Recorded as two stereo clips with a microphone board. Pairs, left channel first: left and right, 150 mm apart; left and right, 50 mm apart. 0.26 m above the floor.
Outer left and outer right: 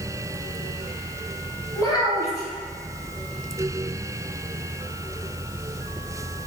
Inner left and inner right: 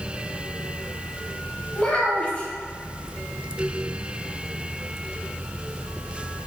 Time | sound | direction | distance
1.8 | a child speaking | 25° left (ahead or behind) | 0.9 m